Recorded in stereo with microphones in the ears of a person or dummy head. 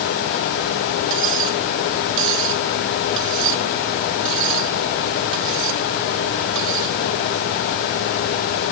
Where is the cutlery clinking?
70° right (ahead or behind).